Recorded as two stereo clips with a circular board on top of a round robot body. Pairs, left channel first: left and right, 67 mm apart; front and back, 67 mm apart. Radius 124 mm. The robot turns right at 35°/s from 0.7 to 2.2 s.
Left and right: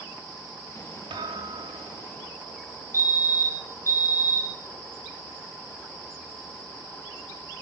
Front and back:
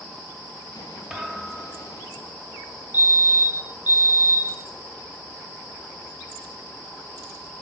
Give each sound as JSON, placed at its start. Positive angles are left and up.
{"t": 1.1, "sound": "a thud", "azimuth_deg": -95, "distance_m": 3.0}
{"t": 2.9, "sound": "a fire alarm", "azimuth_deg": 125, "distance_m": 3.5}